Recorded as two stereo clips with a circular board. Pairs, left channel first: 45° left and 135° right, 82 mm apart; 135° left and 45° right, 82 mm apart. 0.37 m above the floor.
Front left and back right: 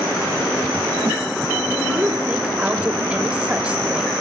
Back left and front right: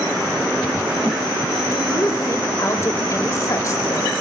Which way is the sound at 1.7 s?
155° left.